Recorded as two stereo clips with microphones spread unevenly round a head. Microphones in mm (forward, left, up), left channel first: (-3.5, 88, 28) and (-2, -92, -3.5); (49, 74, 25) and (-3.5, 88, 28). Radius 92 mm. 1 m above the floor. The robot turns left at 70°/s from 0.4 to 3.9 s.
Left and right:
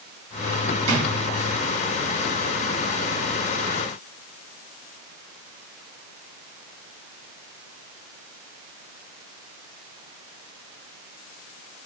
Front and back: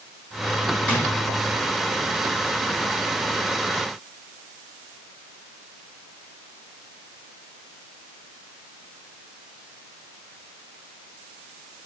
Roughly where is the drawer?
Right.